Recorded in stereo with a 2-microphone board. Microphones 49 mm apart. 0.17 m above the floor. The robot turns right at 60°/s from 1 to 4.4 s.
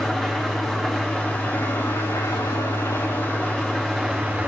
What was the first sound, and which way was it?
An engine running, 5° left.